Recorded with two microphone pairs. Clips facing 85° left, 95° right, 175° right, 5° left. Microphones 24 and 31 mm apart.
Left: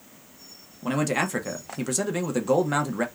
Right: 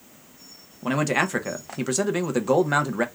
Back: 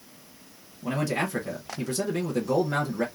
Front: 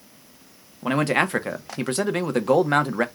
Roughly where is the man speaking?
Ahead.